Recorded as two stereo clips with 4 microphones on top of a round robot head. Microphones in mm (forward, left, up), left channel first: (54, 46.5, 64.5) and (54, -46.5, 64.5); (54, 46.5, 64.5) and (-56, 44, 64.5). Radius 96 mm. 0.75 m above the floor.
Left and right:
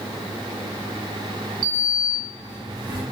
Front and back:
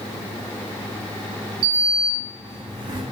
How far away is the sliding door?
About 0.8 m.